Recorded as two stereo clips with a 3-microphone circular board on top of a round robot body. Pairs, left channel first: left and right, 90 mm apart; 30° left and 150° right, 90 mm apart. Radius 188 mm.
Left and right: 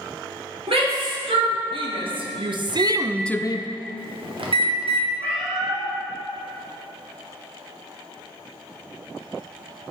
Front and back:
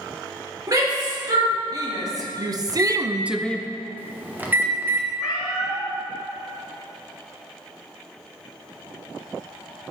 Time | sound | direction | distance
0.7 | a shout | 100° right | 2.5 m
2.7 | a microwave | 80° right | 1.0 m
5.2 | a cat meowing | 70° right | 1.5 m